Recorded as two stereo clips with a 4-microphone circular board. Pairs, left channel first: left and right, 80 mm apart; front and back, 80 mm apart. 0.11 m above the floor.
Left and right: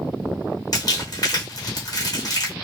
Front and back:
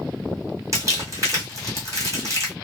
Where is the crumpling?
130° left, 1.6 m.